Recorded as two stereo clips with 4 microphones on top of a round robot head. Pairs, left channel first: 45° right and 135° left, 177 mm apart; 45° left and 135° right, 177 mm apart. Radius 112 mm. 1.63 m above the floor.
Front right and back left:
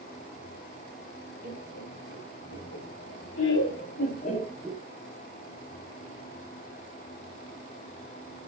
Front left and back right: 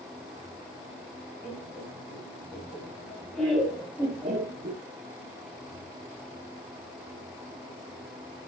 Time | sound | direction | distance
1.4 | laughter | 30° right | 2.5 m